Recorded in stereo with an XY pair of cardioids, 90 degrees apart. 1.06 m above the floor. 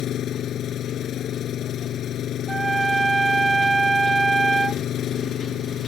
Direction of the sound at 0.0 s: 70° left.